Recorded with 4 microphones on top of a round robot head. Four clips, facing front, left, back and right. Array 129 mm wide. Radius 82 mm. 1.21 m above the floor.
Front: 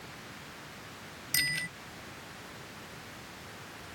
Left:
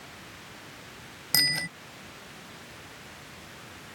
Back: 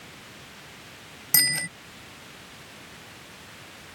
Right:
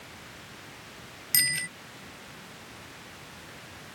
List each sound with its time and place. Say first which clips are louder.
1.3 s a bicycle bell: left 2 dB, back 4 dB; 135° left